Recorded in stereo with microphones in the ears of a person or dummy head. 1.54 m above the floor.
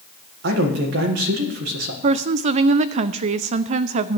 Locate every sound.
0.4 s a man speaking: 65° right (ahead or behind), 1.7 m
2.0 s a woman speaking: 40° right (ahead or behind), 0.5 m